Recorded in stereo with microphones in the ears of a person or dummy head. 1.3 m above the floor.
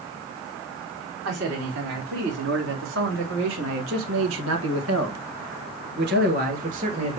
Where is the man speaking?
50° right (ahead or behind), 3.5 m; by 7.2 s 30° right (ahead or behind), 1.6 m.